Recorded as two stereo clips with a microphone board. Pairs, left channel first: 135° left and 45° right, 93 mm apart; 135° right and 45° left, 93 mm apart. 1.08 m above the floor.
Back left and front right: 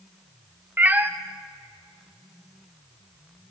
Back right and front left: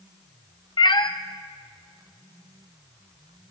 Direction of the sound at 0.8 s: 115° right.